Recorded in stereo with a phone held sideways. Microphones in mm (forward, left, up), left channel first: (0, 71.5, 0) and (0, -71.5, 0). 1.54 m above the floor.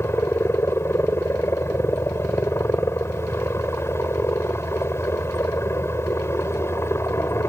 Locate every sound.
0.0 s a helicopter: 15° left (ahead or behind)